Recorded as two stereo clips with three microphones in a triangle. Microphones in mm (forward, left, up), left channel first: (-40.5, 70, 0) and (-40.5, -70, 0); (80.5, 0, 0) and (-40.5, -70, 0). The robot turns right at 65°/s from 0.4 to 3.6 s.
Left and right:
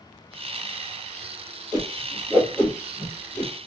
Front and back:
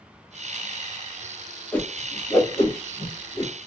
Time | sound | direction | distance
1.7 | a whoosh | 50° right | 1.1 m